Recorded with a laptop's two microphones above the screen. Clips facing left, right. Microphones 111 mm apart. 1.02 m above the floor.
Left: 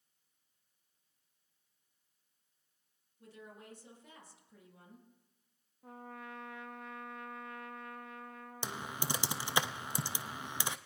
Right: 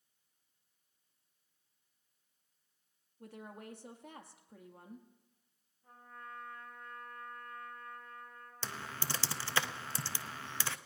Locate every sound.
3.2 s a woman speaking: 60° right (ahead or behind), 2.0 m
5.8 s a trumpet: 80° left, 0.7 m
8.6 s typing on a keyboard: 15° left (ahead or behind), 0.6 m